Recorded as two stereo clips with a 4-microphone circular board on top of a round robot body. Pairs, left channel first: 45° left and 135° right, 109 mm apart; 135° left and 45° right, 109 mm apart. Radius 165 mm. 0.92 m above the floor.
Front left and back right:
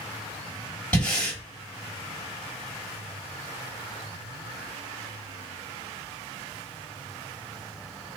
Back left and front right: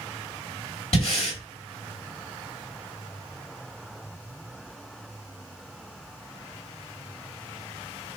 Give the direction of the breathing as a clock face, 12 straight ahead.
8 o'clock.